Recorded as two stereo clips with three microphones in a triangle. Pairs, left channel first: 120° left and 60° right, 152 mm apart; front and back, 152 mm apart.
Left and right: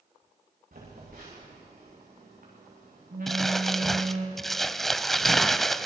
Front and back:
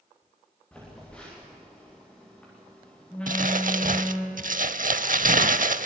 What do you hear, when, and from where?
0.7 s a phone buzzing: 85° right, 10 m
3.3 s crumpling: 150° right, 0.6 m